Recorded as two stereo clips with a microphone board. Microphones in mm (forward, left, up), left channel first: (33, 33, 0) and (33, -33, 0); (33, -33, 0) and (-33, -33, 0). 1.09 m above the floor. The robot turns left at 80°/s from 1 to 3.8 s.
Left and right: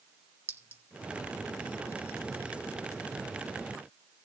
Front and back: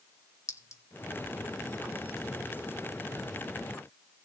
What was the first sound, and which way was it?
A clink, 35° right.